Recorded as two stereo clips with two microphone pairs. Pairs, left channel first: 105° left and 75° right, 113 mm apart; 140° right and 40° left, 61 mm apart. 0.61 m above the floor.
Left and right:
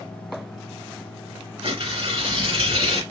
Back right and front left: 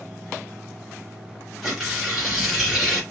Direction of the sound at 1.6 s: 50° right.